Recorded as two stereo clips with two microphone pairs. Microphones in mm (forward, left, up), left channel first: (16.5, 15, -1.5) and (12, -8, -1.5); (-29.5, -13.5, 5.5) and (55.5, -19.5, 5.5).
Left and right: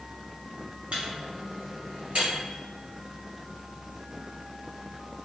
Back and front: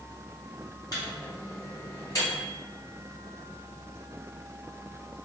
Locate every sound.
0.9 s a microwave: 140° right, 1.6 m